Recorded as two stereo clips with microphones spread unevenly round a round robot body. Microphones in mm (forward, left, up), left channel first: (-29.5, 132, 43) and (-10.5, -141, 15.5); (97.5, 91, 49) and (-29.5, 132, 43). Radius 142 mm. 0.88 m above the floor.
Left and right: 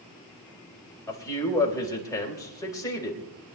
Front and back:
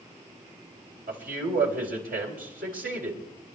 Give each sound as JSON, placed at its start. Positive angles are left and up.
{"t": 1.1, "sound": "a man speaking", "azimuth_deg": 175, "distance_m": 4.0}